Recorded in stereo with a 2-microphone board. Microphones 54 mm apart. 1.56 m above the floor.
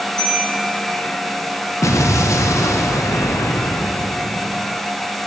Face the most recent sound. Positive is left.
turn(degrees=75)  # may be behind; listen again after turning